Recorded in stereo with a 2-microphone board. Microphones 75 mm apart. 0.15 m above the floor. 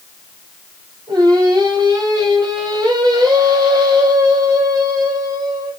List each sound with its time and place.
1.1 s singing: 65° right (ahead or behind), 7.5 m